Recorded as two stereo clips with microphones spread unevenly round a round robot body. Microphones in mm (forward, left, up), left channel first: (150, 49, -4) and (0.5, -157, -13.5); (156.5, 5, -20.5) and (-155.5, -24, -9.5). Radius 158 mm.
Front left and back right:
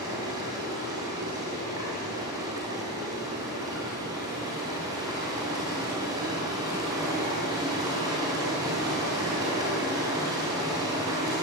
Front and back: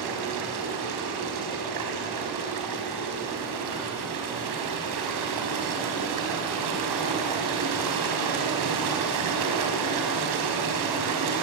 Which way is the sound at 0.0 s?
155° left.